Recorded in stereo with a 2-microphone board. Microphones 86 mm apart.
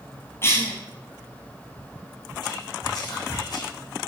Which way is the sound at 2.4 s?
55° left (ahead or behind).